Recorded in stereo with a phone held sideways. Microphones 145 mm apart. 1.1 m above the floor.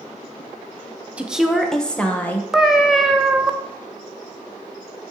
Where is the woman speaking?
10° right (ahead or behind), 0.6 m; by 2.4 s 15° left (ahead or behind), 1.1 m.